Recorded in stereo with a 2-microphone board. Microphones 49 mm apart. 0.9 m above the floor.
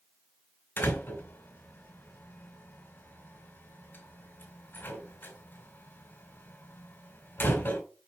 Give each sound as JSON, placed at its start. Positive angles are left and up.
{"t": 0.8, "sound": "a door slam", "side_deg": 45, "distance_m": 3.5}